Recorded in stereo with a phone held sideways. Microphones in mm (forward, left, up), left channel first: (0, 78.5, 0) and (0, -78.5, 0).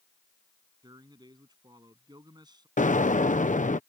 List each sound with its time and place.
0.8 s a man speaking: 25° right (ahead or behind)
2.8 s an explosion: 55° left (ahead or behind)